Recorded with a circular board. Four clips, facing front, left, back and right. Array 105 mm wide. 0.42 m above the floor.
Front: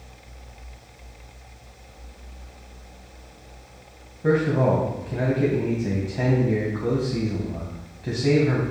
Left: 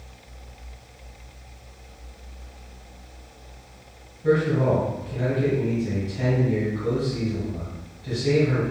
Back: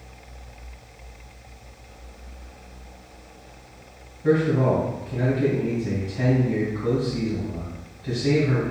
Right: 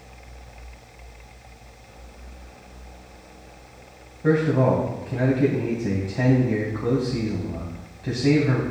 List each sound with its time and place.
4.2 s a man speaking: 45° right, 2.5 m